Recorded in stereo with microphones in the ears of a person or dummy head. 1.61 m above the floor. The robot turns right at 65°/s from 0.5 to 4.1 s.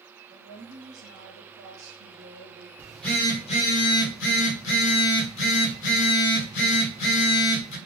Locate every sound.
0.3 s a woman speaking: 155° right, 0.9 m; by 2.7 s 15° right, 0.9 m
2.8 s a phone buzzing: 10° right, 1.1 m; by 7.8 s 75° left, 1.1 m